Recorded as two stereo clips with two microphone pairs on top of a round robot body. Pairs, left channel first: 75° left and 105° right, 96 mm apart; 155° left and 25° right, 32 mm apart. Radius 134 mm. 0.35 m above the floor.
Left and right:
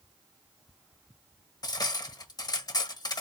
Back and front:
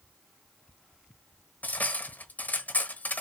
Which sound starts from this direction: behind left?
Cutlery clinking, at 1.6 s.